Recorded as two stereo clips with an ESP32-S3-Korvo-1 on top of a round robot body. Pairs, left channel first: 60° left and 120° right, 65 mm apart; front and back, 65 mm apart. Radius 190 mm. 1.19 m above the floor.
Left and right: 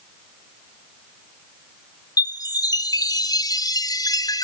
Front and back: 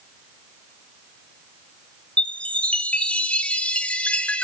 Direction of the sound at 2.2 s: 70° left.